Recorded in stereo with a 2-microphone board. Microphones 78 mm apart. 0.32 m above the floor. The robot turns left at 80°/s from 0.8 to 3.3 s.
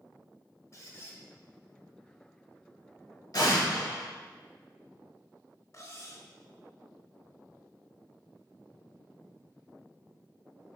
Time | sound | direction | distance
0.7 | a squeak | 70° left | 0.6 m
3.3 | an explosion | 55° left (ahead or behind) | 1.5 m
5.7 | cutlery clinking | 40° left (ahead or behind) | 0.5 m